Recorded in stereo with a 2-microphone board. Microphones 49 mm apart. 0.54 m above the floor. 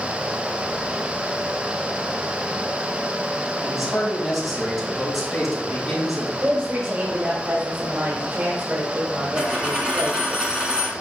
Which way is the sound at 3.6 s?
5° left (ahead or behind).